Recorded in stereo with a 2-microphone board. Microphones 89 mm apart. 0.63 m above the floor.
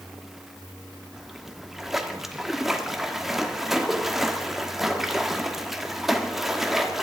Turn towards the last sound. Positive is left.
turn(degrees=-5)  # may be behind; listen again after turning